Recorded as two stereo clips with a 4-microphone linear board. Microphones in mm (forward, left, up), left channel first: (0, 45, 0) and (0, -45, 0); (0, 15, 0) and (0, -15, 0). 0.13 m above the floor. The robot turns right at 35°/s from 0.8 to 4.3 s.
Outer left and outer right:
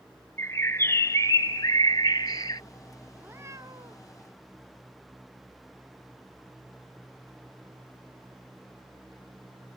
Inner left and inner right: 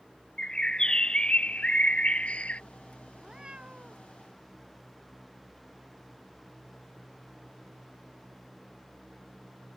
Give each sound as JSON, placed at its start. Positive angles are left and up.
{"t": 0.4, "sound": "a bird", "azimuth_deg": 40}
{"t": 3.1, "sound": "a cat meowing", "azimuth_deg": -160}